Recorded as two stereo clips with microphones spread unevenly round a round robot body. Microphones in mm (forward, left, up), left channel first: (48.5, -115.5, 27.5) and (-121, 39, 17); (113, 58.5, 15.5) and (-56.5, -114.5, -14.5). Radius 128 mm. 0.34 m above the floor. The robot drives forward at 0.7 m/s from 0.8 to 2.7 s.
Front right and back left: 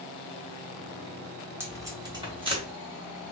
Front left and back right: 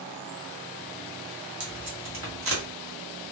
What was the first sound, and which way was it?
Tape being pulled, 145° right.